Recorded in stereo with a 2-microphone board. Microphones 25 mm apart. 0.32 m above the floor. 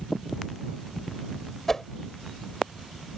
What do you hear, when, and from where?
1.7 s a whoosh: 15° left (ahead or behind)